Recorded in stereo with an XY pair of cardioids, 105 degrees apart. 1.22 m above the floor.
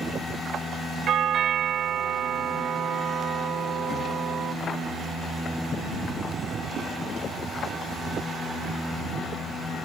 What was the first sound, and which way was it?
A doorbell, 70° right.